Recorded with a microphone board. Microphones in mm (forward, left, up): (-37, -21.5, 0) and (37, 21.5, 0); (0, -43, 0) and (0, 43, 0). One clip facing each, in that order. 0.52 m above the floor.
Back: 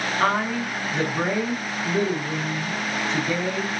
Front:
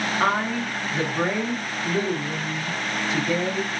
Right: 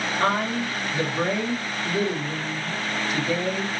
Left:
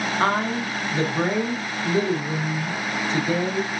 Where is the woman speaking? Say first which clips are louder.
Back 1 dB, left 1 dB; 120° left, 0.8 m.